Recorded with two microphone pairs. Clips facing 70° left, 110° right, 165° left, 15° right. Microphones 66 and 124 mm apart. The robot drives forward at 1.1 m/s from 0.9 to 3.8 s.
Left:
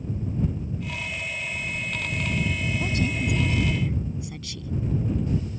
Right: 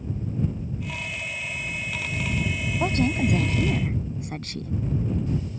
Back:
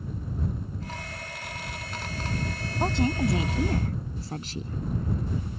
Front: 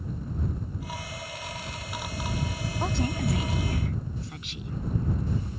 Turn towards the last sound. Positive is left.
turn(degrees=-150)